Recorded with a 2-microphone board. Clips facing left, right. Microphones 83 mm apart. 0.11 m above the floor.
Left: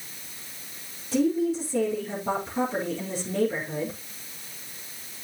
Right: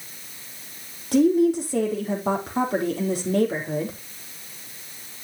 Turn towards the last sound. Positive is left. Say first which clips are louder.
# right 6 dB
turn(degrees=-70)  # may be behind; listen again after turning